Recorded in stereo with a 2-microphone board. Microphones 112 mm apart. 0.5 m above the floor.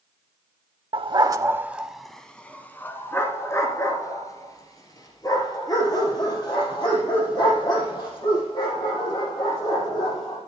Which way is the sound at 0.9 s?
55° right (ahead or behind).